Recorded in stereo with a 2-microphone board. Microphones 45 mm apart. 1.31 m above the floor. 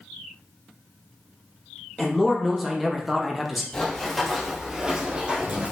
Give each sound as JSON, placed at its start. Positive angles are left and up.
{"t": 2.0, "sound": "a man speaking", "side_deg": 0, "distance_m": 0.7}
{"t": 3.7, "sound": "running footsteps", "side_deg": 20, "distance_m": 1.7}